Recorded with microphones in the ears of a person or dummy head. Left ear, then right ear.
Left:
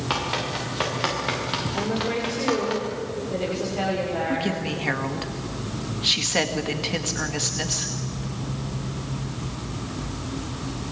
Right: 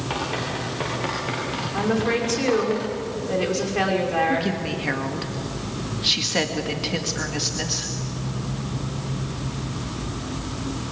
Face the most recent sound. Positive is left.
turn(degrees=10)  # may be behind; listen again after turning